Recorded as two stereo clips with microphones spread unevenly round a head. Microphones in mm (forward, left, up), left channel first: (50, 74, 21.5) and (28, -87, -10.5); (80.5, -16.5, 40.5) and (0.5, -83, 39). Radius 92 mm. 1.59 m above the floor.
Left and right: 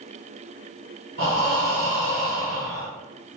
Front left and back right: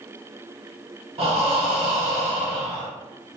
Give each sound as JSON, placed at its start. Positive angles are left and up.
{"t": 1.2, "sound": "breathing", "azimuth_deg": -115, "distance_m": 0.9}